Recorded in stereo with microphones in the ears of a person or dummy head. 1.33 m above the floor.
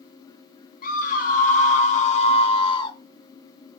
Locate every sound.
0.8 s a scream: 50° left (ahead or behind), 1.9 m; by 3.0 s 25° left (ahead or behind), 1.0 m